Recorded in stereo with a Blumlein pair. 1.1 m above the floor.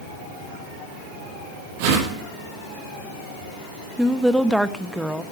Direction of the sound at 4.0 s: Straight ahead.